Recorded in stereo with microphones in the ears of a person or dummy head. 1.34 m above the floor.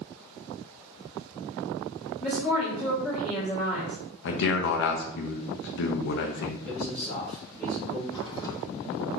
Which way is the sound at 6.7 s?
15° left (ahead or behind).